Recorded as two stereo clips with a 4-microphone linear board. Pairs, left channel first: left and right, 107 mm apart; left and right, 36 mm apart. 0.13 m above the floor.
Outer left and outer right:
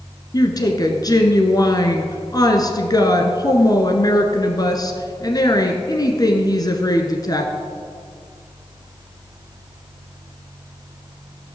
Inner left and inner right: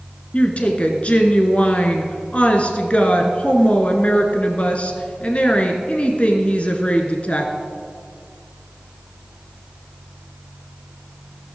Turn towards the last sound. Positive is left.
turn(degrees=40)  # may be behind; listen again after turning